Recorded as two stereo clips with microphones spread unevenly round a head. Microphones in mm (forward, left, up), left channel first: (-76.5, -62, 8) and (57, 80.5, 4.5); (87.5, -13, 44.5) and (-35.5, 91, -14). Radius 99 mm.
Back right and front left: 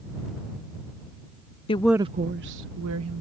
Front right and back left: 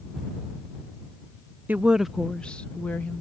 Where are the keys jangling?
I don't hear keys jangling.